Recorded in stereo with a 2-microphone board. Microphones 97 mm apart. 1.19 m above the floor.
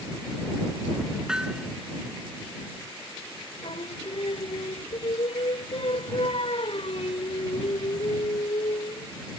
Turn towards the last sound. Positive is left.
turn(degrees=70)  # may be behind; listen again after turning